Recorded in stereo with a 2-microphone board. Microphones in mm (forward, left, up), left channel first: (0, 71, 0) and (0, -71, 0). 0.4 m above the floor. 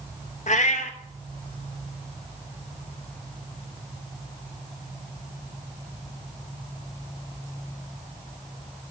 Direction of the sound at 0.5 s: 65° left (ahead or behind).